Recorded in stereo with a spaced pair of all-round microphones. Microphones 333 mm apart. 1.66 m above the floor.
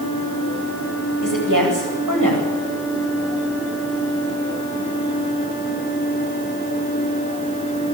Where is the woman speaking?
70° right (ahead or behind), 9 m.